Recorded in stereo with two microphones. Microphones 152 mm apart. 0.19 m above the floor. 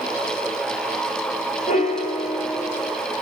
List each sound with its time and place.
1.7 s a piano: 60° left (ahead or behind), 0.8 m